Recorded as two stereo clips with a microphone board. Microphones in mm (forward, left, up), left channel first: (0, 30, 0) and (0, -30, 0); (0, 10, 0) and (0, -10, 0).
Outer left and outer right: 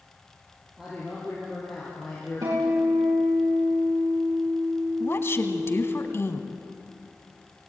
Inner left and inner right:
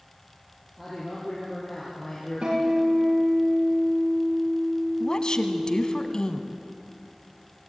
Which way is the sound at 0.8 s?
10° right (ahead or behind).